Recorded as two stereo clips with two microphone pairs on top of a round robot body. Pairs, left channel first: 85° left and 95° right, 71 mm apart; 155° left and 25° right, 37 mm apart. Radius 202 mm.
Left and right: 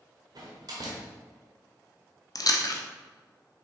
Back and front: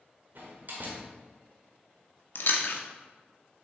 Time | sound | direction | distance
0.3 | a door slam | 65° right | 0.9 m
2.4 | chewing | 125° left | 0.7 m